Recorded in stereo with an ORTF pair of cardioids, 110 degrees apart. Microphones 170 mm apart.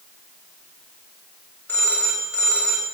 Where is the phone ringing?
10° left, 4 m.